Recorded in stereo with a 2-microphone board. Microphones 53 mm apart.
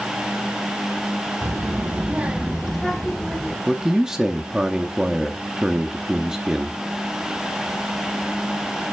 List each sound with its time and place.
1.4 s a child speaking: 60° right (ahead or behind), 0.8 m; by 3.6 s 15° left (ahead or behind), 1.3 m
3.7 s a man speaking: 10° right (ahead or behind), 0.6 m